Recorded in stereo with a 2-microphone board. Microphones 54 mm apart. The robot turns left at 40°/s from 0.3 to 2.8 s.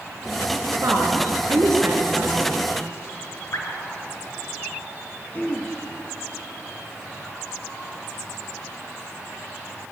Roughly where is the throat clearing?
Left.